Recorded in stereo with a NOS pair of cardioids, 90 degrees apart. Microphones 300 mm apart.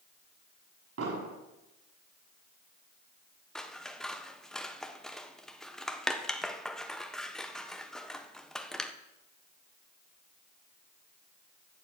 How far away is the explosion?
About 5.5 m.